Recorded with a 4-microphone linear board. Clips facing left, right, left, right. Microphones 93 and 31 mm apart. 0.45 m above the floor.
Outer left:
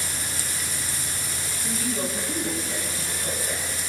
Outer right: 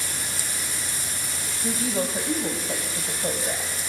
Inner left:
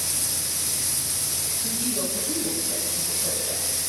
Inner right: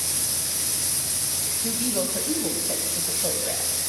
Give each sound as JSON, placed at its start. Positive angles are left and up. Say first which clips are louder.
{"t": 1.6, "sound": "a woman speaking", "louder": "outer right 3 dB, inner right 3 dB", "side_deg": -50, "distance_m": 2.5}